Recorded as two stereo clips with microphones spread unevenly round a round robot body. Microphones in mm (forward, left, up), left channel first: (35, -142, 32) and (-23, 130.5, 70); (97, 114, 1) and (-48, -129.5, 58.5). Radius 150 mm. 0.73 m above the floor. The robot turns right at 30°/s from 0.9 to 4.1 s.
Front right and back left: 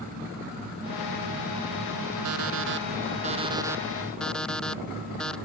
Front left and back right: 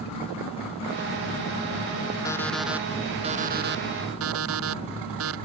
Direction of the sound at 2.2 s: 140° left.